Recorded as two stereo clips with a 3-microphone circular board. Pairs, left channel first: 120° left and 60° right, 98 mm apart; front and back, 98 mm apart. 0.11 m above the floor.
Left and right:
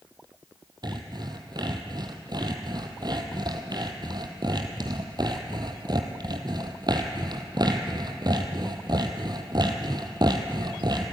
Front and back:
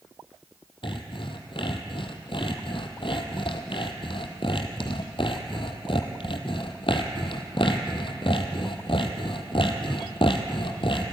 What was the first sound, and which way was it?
Sawing, 20° right.